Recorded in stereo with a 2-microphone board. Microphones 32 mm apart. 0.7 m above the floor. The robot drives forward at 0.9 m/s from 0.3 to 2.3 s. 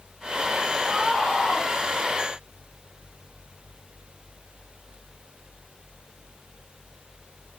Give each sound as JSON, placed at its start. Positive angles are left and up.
{"t": 0.8, "sound": "a scream", "side_deg": 20, "distance_m": 6.0}